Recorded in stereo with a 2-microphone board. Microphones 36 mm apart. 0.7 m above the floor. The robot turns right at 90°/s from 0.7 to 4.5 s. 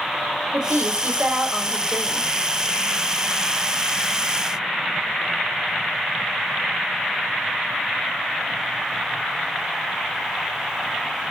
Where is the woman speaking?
90° right, 3 m; by 2.3 s 55° left, 3 m.